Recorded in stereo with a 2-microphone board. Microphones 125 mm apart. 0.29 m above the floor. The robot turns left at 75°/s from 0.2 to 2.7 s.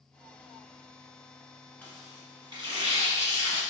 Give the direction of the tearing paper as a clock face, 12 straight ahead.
12 o'clock.